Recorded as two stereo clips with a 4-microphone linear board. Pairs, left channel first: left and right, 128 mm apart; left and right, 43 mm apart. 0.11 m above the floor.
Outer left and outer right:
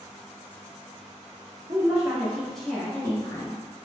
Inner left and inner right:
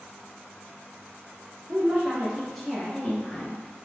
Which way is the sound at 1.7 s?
35° right (ahead or behind).